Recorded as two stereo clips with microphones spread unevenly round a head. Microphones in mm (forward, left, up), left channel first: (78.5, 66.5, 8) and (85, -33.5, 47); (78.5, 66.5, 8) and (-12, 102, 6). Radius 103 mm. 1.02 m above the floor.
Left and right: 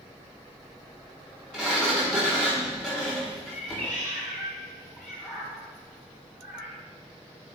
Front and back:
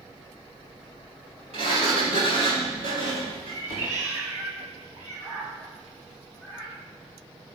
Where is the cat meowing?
165° left, 4 m.